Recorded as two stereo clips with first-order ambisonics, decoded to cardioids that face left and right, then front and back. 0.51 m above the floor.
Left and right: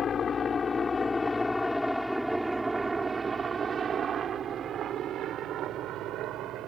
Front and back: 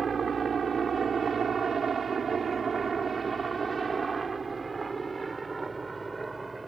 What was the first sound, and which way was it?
A helicopter, 130° left.